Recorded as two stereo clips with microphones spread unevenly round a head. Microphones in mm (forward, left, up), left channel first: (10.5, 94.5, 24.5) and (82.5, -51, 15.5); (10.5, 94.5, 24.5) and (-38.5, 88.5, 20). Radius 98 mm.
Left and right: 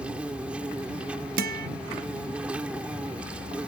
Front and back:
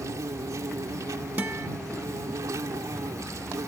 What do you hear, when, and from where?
0.0 s an insect: 150° right
1.4 s a guitar: 100° right